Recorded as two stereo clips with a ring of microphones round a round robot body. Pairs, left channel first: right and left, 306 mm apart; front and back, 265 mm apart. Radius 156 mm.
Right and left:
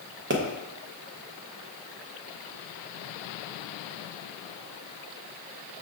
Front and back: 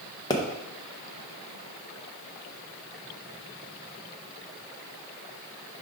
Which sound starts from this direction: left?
A pop, at 0.3 s.